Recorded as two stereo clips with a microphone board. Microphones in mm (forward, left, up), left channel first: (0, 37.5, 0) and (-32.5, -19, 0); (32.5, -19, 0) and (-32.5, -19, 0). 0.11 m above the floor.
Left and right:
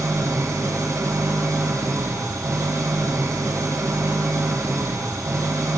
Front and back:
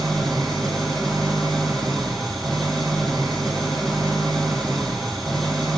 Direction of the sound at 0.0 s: 85° right.